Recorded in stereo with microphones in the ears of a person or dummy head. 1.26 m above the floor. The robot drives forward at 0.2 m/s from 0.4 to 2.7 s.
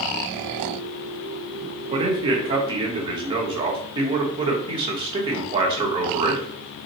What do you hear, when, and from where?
1.9 s a man speaking: 30° right (ahead or behind), 0.9 m; by 6.5 s 25° right (ahead or behind), 1.0 m